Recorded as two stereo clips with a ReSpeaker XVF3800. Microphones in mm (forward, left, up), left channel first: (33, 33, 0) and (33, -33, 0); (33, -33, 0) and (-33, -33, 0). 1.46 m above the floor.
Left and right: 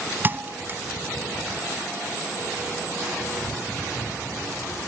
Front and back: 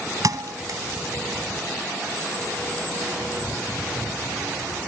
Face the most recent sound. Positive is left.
turn(degrees=-150)